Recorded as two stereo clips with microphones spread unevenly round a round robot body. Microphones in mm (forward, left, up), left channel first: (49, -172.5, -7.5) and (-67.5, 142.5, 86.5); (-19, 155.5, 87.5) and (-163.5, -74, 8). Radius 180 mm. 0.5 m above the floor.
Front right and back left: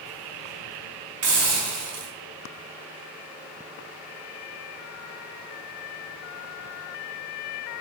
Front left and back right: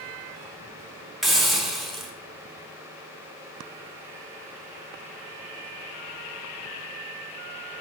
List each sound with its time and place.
1.2 s a hiss: 155° left, 1.2 m